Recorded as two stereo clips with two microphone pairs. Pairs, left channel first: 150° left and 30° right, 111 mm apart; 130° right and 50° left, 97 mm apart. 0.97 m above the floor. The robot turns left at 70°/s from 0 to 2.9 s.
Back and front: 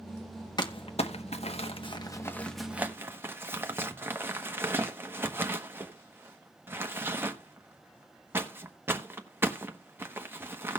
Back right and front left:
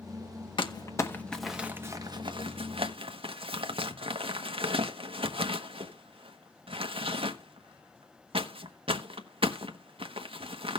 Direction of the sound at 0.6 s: 160° right.